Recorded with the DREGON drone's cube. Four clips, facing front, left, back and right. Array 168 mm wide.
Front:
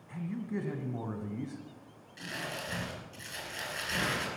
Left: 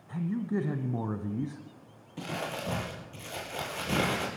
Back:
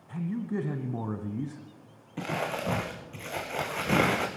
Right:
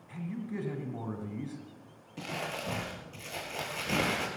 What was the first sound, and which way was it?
A man speaking, 135° left.